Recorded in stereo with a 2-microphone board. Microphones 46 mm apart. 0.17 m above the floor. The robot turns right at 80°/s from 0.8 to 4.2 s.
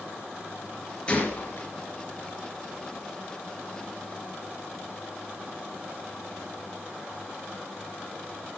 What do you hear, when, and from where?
1.1 s a gunshot: 25° left (ahead or behind), 3 m; by 1.7 s 60° left (ahead or behind), 3 m